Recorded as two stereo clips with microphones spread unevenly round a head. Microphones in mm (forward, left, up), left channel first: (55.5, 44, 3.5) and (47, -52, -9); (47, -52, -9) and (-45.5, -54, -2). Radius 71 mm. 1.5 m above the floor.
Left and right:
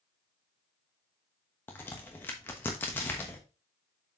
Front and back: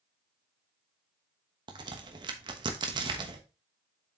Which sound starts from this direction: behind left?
A crack, at 1.7 s.